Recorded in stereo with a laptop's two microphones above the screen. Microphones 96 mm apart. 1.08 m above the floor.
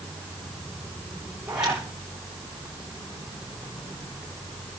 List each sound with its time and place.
1.5 s a zipper: 10° right (ahead or behind), 9.5 m